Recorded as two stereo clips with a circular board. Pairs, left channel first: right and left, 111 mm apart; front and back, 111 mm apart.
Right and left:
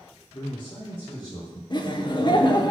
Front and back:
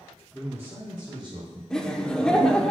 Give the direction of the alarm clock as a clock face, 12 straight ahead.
No alarm clock in this recording.